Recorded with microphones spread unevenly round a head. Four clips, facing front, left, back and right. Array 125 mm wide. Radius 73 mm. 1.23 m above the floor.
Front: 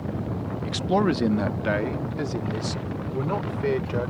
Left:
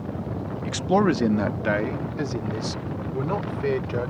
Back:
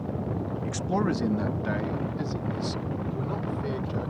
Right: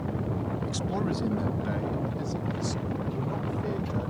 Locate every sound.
0.7 s a man speaking: 65° left; by 4.1 s 45° left